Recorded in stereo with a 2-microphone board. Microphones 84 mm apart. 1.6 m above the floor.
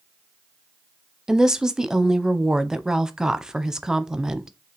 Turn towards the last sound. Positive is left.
turn(degrees=-5)  # may be behind; listen again after turning